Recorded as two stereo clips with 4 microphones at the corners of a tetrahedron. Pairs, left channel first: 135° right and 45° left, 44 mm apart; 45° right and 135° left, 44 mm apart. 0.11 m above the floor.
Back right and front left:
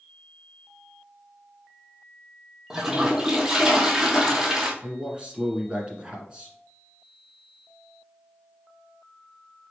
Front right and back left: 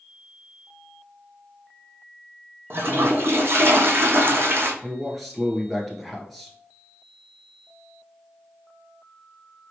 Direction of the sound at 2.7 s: 120° left.